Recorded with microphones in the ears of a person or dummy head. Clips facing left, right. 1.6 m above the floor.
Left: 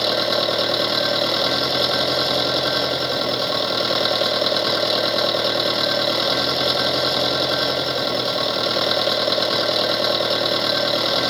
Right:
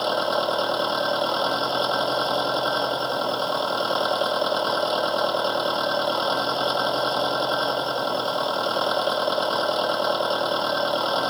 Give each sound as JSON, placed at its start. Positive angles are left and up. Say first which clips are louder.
{"t": 0.0, "sound": "an engine running", "louder": "left 2 dB", "side_deg": 25}